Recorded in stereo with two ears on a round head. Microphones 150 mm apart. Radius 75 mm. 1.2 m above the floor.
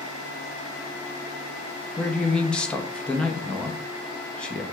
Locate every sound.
2.0 s a man speaking: 5° left (ahead or behind), 0.5 m